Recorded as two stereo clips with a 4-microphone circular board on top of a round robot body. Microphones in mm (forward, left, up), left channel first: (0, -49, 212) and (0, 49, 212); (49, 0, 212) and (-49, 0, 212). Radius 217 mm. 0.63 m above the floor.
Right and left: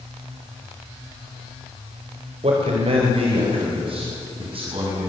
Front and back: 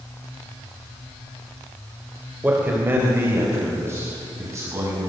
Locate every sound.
2.4 s a man speaking: 105° left, 3.5 m; by 5.1 s 120° left, 7 m